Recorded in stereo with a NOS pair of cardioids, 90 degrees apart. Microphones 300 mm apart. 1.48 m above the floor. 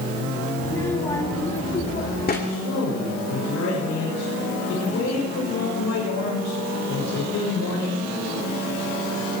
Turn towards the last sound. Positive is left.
turn(degrees=65)